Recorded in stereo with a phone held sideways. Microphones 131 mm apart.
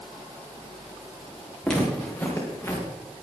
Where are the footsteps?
5° left (ahead or behind), 5 m; by 2.9 s 20° left (ahead or behind), 4.5 m.